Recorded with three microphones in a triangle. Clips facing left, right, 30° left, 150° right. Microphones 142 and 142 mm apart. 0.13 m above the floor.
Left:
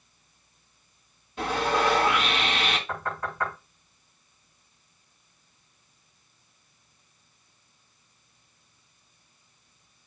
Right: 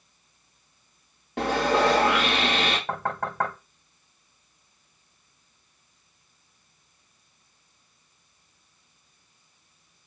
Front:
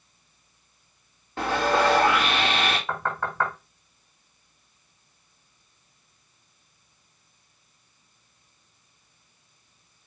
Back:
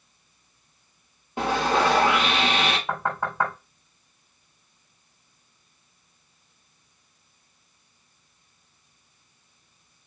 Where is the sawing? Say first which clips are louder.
Right 3 dB, even; 75° right, 4.5 m.